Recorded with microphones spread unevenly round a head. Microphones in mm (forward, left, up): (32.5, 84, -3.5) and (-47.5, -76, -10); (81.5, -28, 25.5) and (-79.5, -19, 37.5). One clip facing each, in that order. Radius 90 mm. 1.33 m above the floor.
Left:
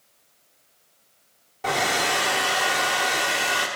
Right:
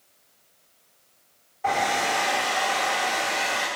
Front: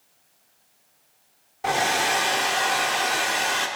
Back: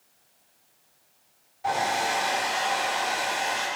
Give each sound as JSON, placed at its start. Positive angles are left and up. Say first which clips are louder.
{"t": 1.6, "sound": "a hair dryer", "louder": "even, front 2 dB", "azimuth_deg": 20, "distance_m": 1.2}